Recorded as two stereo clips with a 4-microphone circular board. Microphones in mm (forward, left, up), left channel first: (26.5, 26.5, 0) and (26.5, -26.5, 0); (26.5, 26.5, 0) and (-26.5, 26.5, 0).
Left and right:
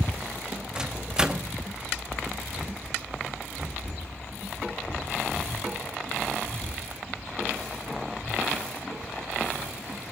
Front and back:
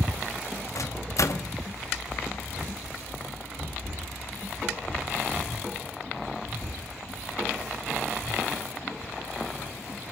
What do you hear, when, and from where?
0.8 s a microwave: 15° right, 1.2 m